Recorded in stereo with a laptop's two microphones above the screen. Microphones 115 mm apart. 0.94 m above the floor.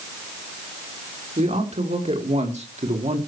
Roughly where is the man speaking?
Right.